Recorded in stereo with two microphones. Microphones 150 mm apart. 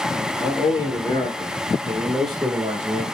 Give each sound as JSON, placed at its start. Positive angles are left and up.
{"t": 0.4, "sound": "a man speaking", "side_deg": 40, "distance_m": 2.0}